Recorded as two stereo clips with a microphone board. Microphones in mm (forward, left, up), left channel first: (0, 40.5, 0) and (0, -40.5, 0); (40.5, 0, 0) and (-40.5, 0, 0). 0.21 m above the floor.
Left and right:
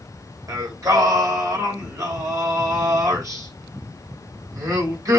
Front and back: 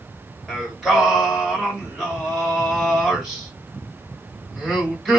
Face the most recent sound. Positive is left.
turn(degrees=-95)